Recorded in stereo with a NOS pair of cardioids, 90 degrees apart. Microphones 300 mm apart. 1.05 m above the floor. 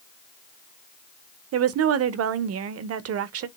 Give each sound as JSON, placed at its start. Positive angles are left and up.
{"t": 1.5, "sound": "a woman speaking", "azimuth_deg": -55, "distance_m": 0.6}